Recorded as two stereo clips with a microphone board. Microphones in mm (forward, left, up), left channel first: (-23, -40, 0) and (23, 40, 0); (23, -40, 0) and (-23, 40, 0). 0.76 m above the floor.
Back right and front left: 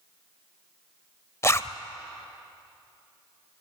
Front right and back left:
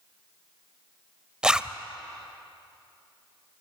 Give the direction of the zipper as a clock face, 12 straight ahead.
5 o'clock.